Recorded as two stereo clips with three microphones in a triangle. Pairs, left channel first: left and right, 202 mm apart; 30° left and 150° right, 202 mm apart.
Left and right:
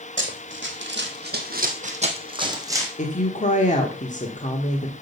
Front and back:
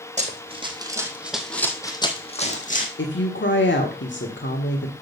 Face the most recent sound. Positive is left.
turn(degrees=40)